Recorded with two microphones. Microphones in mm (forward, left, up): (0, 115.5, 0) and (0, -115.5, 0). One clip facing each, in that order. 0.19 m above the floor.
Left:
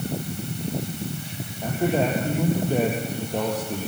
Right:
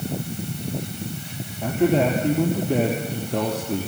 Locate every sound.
1.6 s a man speaking: 75° right (ahead or behind), 3.5 m